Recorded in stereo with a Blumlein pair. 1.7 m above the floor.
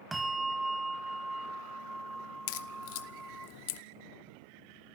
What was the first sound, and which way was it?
A bell, 5° right.